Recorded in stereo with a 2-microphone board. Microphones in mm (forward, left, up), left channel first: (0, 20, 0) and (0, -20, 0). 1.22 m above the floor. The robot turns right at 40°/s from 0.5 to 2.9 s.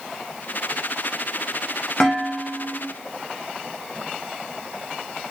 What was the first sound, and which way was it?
Dishes clattering, 160° left.